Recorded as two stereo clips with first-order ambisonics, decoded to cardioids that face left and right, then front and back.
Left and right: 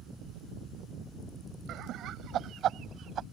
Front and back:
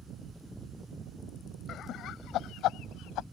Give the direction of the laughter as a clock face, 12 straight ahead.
2 o'clock.